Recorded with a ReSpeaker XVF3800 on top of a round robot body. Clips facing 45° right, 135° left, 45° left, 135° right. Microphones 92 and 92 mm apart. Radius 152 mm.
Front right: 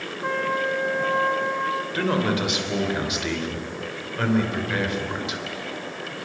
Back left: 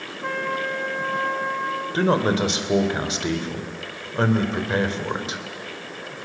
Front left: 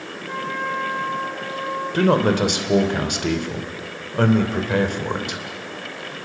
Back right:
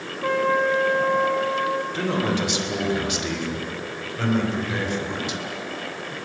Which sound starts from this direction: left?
A man speaking, at 1.9 s.